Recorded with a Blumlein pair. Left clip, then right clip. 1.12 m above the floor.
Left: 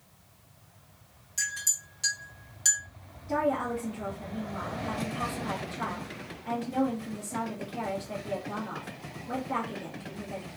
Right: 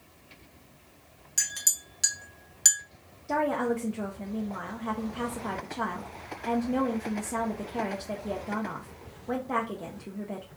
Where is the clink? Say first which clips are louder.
Right 2 dB; 25° right, 1.0 m.